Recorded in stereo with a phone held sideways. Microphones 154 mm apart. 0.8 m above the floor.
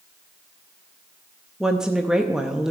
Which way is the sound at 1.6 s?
5° right (ahead or behind).